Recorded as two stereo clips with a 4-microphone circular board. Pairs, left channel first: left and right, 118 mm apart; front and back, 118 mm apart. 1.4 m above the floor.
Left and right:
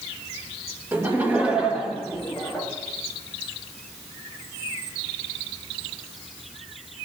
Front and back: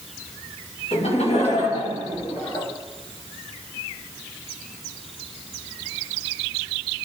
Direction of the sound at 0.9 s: 20° right.